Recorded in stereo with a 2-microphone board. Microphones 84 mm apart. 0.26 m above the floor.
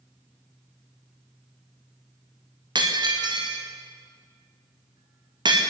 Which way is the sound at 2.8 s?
65° right (ahead or behind).